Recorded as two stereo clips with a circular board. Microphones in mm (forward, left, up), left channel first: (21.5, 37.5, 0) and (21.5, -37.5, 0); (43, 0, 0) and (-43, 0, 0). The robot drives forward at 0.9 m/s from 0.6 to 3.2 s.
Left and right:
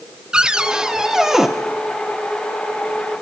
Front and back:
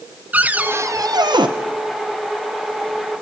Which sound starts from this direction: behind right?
A cupboard door, at 0.3 s.